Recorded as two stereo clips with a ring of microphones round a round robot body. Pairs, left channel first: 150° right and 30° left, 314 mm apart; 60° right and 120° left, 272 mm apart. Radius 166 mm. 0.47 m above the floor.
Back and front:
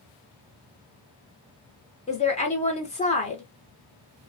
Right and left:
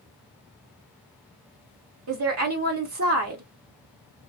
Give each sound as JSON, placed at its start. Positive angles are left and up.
{"t": 2.1, "sound": "a woman speaking", "azimuth_deg": 145, "distance_m": 1.1}